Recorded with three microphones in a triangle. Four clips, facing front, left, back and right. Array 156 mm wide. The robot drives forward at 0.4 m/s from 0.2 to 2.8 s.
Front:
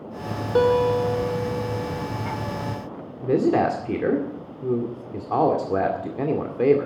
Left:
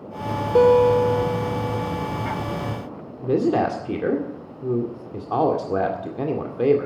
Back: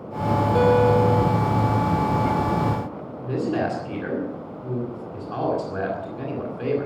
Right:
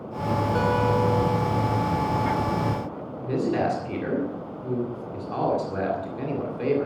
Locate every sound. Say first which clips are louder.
0.6 s a guitar: left 11 dB, even; 70° left, 2 m; by 2.1 s 85° left, 1.9 m
3.2 s a man speaking: left 5 dB, front 5 dB; 40° left, 2 m